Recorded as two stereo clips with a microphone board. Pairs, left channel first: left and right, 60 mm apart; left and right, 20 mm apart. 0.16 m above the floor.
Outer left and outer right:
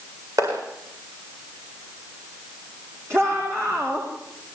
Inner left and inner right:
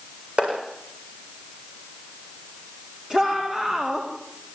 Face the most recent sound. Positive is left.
turn(degrees=-45)  # may be behind; listen again after turning